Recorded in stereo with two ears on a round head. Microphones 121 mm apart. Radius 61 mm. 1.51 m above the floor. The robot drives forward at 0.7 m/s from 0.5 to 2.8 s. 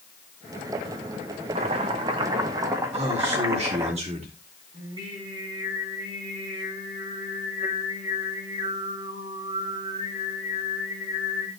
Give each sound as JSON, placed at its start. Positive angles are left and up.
{"t": 1.6, "sound": "chopping", "side_deg": -50, "distance_m": 1.2}
{"t": 2.9, "sound": "a man speaking", "side_deg": -50, "distance_m": 4.0}
{"t": 4.7, "sound": "singing", "side_deg": -40, "distance_m": 6.0}